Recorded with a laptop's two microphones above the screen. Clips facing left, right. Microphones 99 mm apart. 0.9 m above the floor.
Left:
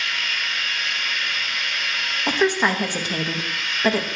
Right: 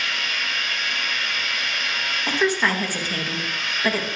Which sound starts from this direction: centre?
A woman speaking, at 2.3 s.